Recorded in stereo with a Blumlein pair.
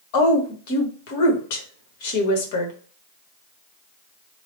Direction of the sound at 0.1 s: 50° left.